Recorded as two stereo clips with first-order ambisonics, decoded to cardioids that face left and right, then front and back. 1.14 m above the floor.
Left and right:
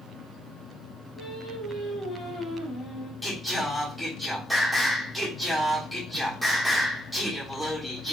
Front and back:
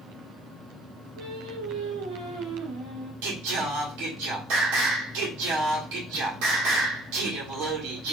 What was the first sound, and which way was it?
Singing, 165° left.